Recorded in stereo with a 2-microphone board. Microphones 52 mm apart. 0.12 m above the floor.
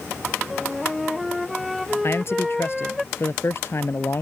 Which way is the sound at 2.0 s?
55° left (ahead or behind).